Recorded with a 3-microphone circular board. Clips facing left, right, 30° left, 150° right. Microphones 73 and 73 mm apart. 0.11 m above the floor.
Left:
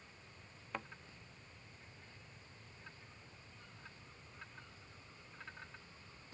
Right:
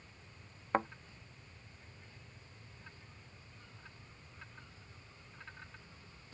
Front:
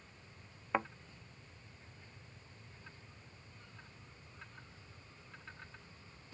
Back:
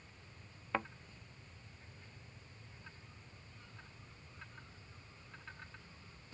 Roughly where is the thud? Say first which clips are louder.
Right 13 dB, front 3 dB; ahead right.